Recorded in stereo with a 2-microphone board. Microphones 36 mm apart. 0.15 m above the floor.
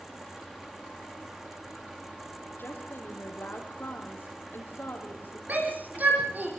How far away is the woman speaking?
About 5.5 m.